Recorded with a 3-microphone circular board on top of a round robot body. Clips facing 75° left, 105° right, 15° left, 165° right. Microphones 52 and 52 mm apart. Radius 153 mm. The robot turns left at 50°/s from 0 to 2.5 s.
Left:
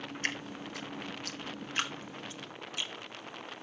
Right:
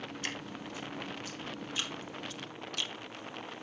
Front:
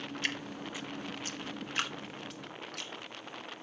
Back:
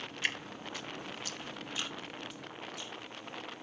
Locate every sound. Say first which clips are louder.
0.2 s dripping: left 5 dB, back 2 dB; 120° left, 2 m; by 2.9 s 5° left, 2 m